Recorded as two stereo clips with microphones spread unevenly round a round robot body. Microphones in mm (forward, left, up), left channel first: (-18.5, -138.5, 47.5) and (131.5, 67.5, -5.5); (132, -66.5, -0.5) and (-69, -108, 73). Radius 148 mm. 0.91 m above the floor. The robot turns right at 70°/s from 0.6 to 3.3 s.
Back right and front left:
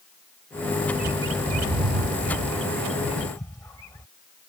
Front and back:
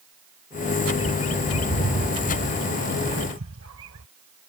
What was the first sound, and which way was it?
A bird, 10° right.